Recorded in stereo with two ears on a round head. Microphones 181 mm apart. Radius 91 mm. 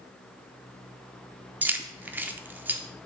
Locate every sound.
1.6 s keys jangling: 10° right (ahead or behind), 0.6 m